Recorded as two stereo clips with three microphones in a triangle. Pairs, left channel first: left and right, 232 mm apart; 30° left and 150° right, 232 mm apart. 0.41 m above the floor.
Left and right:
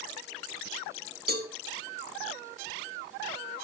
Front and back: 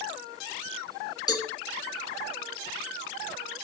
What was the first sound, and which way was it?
A cowbell, 45° right.